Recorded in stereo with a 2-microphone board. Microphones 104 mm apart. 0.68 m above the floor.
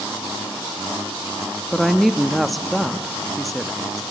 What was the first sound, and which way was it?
A woman speaking, centre (ahead or behind).